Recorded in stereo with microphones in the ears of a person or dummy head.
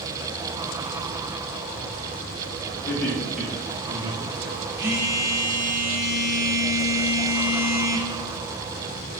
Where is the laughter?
15° left (ahead or behind), 1.2 m; by 4.6 s 45° right (ahead or behind), 1.2 m.